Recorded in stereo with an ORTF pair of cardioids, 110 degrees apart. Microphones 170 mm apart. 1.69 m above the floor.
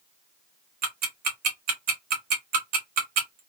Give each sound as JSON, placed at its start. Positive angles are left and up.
{"t": 0.8, "sound": "ticking", "azimuth_deg": -65, "distance_m": 1.2}